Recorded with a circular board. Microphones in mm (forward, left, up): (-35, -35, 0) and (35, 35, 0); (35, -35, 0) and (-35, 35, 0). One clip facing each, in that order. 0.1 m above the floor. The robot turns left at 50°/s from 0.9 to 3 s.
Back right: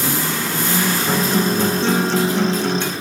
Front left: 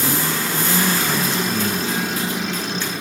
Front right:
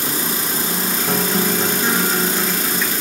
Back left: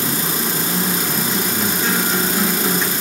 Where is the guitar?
80° right, 1.7 m; by 2.9 s 170° right, 1.7 m.